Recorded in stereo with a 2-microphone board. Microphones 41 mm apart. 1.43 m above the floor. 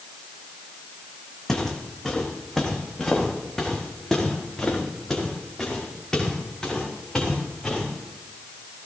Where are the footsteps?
15° left (ahead or behind), 3 m; by 7.8 s 20° left (ahead or behind), 7 m.